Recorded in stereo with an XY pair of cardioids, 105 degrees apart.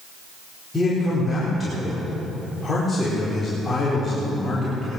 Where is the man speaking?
15° left, 4.5 m.